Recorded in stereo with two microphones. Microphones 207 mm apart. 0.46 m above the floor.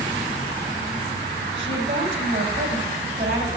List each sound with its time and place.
1.6 s a woman speaking: 60° right (ahead or behind), 4 m